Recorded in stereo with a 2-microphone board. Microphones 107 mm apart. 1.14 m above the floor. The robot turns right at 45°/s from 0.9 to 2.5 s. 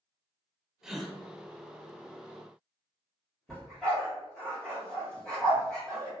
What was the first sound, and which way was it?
A gasp, 5° right (ahead or behind).